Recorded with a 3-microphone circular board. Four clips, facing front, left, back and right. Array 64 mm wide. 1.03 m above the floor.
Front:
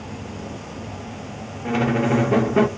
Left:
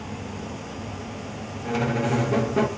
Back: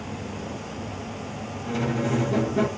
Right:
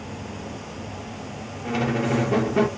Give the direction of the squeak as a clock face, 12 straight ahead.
12 o'clock.